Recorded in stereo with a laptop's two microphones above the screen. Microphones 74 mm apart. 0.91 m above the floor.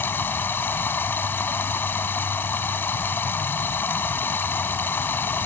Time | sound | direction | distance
0.0 | running water | 30° left (ahead or behind) | ?